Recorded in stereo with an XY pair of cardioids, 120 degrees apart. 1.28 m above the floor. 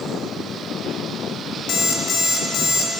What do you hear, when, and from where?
1.7 s an alarm clock: 60° left, 1.5 m